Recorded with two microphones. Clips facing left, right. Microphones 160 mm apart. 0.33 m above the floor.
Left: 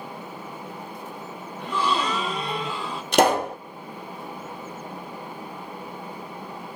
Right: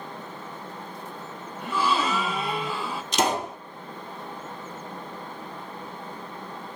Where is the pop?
55° left (ahead or behind), 1.3 m.